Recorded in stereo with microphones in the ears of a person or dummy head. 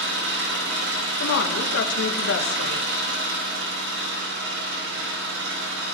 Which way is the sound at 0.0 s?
75° right (ahead or behind).